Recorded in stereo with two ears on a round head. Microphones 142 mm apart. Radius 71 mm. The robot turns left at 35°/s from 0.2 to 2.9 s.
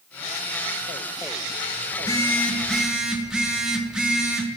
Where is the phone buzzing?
30° left, 0.7 m; by 4.5 s 5° right, 0.7 m.